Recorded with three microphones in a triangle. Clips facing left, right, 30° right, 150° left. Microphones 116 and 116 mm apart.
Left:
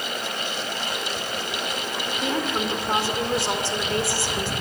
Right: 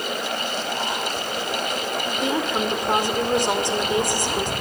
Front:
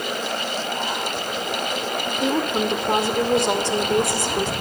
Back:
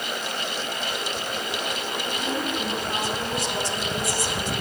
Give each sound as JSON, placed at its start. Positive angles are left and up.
{"t": 2.1, "sound": "a woman speaking", "azimuth_deg": -20, "distance_m": 2.0}